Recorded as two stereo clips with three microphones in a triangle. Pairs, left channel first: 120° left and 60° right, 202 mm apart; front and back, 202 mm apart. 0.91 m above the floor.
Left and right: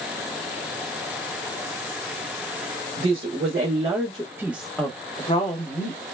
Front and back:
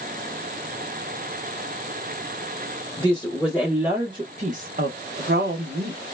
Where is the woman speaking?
80° right, 1.0 m; by 6.0 s 160° left, 0.9 m.